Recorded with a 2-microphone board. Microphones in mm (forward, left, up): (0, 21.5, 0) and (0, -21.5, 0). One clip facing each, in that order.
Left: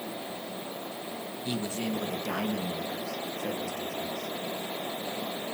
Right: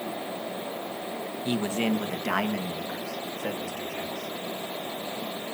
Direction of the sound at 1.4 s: 30° right (ahead or behind).